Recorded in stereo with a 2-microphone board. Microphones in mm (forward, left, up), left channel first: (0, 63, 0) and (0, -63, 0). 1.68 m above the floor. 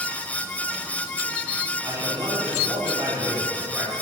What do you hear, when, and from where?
1.8 s a man speaking: 30° right (ahead or behind), 5.5 m; by 3.9 s 15° right (ahead or behind), 6.5 m